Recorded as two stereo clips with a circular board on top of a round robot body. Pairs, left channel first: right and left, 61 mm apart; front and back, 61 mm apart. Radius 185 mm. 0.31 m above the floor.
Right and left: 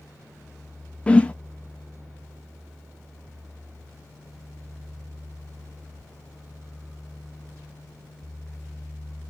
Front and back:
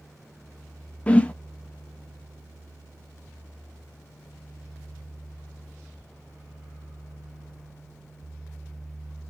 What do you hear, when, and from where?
1.1 s a whoosh: 45° right, 0.9 m